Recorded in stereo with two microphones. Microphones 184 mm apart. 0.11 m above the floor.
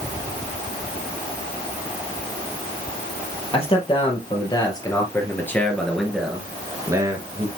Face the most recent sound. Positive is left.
turn(degrees=-30)  # may be behind; listen again after turning